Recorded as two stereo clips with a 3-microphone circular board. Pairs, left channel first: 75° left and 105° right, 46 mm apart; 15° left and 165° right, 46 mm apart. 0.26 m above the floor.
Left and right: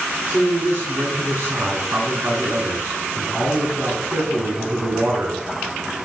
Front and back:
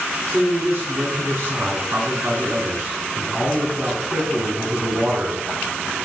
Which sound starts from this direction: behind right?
A man speaking, at 0.3 s.